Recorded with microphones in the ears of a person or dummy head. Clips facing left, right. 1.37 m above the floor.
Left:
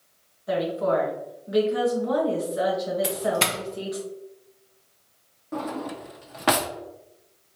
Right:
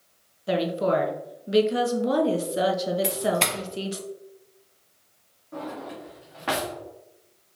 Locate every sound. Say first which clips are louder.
0.5 s a woman speaking: even; 35° right (ahead or behind), 0.7 m
3.0 s a doorbell: even; 5° left (ahead or behind), 0.6 m
5.5 s a drawer: left 4 dB; 55° left (ahead or behind), 0.8 m